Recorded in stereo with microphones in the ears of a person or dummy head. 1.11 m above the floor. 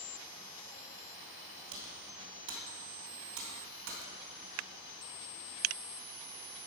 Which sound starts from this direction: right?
Typing on a keyboard, at 1.7 s.